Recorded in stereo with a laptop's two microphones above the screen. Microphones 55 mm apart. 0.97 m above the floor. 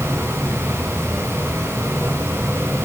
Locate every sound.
0.0 s a fan: 50° right (ahead or behind), 8.5 m